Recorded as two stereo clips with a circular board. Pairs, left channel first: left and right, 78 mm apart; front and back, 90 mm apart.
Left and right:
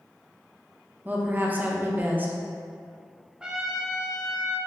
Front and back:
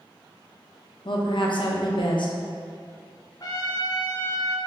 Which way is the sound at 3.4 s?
15° right.